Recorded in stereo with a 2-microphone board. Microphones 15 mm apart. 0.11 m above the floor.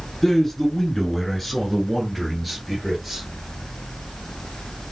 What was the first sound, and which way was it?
A man speaking, 20° left (ahead or behind).